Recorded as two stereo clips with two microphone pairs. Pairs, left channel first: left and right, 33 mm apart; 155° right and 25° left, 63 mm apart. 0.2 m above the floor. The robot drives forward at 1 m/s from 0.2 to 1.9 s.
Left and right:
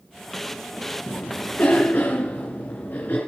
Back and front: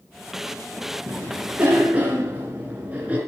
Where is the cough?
70° left, 3.5 m; by 3.2 s 85° left, 3.5 m.